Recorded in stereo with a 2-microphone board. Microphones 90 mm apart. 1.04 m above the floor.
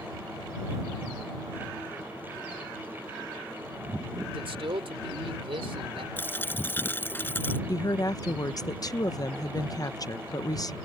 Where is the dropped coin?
25° left (ahead or behind).